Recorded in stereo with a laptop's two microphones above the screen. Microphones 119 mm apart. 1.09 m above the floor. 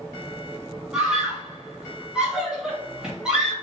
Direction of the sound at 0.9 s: 10° right (ahead or behind).